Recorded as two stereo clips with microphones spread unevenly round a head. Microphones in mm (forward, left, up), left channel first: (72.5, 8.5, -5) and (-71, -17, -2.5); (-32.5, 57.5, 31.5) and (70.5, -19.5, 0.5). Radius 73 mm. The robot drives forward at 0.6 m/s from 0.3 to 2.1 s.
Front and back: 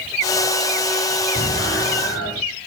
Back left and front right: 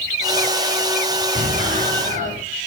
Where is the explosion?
10° right, 5.5 m.